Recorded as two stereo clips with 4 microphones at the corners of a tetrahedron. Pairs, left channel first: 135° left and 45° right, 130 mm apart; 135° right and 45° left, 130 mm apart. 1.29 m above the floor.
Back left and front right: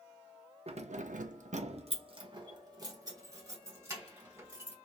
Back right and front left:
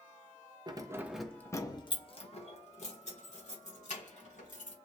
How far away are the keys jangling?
About 0.6 m.